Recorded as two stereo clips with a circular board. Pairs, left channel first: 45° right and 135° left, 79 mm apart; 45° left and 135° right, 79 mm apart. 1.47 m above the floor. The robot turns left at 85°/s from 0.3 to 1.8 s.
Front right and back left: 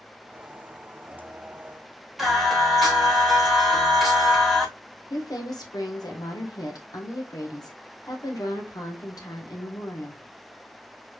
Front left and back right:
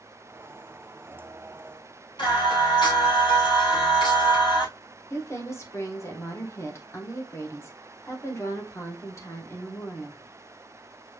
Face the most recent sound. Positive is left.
turn(degrees=-10)